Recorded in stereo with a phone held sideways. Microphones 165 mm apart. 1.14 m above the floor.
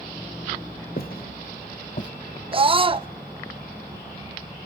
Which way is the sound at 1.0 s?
65° left (ahead or behind).